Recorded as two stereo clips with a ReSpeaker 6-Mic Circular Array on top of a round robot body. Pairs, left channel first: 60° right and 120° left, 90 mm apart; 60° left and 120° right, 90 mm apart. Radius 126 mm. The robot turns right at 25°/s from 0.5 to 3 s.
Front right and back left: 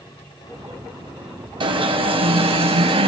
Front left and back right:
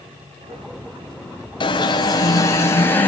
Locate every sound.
1.6 s an alarm: 95° left, 5 m; by 3.1 s 130° left, 5 m